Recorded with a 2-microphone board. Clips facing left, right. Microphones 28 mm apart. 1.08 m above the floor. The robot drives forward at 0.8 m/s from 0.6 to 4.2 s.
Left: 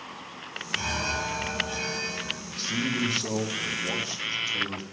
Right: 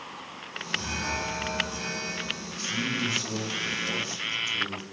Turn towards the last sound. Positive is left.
turn(degrees=30)  # may be behind; listen again after turning